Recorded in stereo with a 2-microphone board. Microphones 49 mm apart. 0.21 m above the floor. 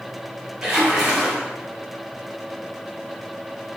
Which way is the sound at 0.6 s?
15° right (ahead or behind).